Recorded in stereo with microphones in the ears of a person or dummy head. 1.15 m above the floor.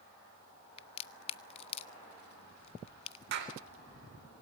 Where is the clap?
70° right (ahead or behind), 4 m.